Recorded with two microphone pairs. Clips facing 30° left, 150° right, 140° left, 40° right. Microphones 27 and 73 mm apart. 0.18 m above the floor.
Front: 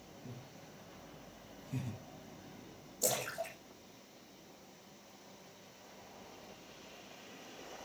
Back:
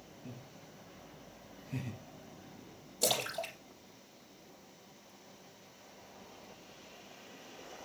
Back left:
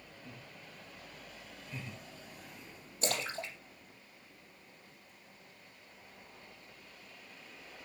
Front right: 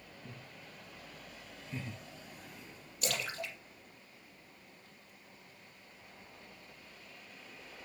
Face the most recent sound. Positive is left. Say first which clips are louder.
# back 3 dB, back left 2 dB
turn(degrees=-160)